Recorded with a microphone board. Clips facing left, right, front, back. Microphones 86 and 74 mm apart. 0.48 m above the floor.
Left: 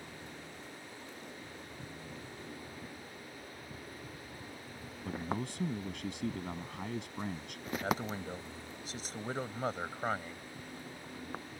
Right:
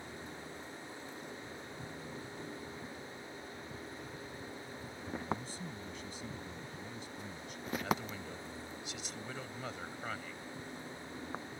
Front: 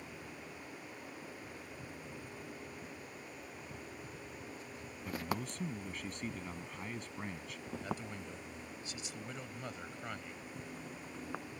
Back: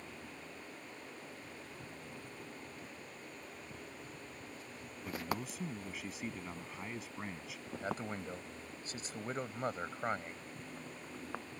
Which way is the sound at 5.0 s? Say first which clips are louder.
Left 2 dB, even; 95° left.